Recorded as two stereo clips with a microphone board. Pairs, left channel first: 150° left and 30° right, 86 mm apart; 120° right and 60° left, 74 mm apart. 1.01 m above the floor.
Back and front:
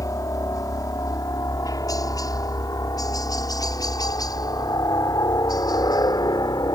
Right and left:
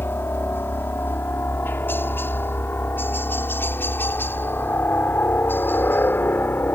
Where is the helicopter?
175° right; by 6.8 s straight behind.